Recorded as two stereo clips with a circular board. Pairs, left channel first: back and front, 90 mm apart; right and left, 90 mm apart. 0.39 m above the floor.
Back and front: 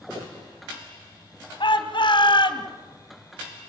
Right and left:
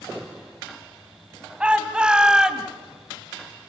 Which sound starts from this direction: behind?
A shout, at 1.6 s.